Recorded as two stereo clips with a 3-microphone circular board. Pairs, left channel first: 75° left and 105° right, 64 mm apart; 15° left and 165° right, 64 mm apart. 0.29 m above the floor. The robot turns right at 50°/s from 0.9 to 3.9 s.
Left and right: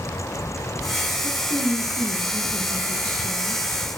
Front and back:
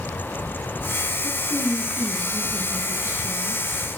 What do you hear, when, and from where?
1.2 s a woman speaking: 60° left, 3.5 m; by 3.6 s straight behind, 3.5 m